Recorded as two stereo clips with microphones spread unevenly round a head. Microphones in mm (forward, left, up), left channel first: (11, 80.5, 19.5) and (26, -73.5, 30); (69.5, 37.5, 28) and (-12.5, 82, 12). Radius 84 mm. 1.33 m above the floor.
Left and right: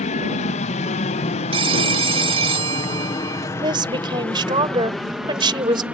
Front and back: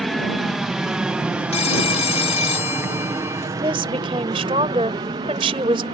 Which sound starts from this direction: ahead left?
An aircraft, at 0.0 s.